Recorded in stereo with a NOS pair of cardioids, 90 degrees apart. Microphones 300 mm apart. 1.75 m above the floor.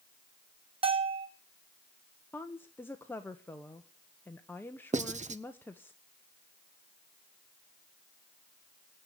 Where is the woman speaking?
5° left, 1.0 m.